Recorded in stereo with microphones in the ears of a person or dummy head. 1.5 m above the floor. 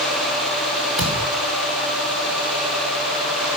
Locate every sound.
1.0 s a thud: centre (ahead or behind), 1.6 m